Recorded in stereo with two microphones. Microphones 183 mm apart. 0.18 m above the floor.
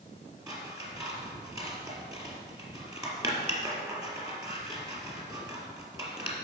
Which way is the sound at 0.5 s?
20° right (ahead or behind).